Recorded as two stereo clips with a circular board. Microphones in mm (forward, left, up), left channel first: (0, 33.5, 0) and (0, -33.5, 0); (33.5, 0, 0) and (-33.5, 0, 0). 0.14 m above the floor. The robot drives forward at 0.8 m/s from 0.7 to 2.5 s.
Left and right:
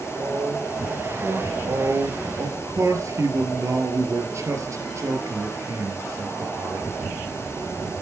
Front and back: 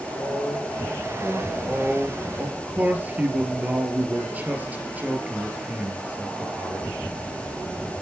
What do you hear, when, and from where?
0.1 s a man speaking: 80° right, 3.5 m; by 1.5 s 90° right, 3.5 m
1.6 s a man speaking: 100° right, 2.5 m; by 6.9 s 120° right, 2.5 m